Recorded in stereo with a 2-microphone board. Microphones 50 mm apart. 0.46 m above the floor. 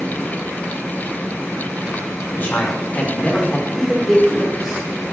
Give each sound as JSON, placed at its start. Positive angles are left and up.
{"t": 2.3, "sound": "a man speaking", "side_deg": 50, "distance_m": 1.9}